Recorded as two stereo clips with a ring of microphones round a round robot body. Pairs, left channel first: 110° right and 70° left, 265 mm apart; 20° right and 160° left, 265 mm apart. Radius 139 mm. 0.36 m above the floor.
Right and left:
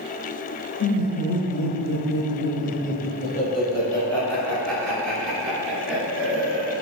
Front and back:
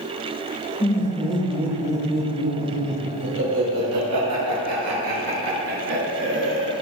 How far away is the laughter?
About 2 m.